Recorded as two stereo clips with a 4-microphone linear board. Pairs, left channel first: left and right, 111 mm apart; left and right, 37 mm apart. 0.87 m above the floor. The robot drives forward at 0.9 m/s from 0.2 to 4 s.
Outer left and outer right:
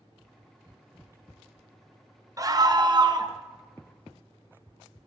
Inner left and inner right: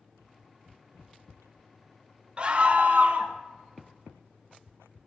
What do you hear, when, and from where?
2.4 s a scream: 30° right (ahead or behind), 0.9 m; by 3.4 s 35° right (ahead or behind), 0.8 m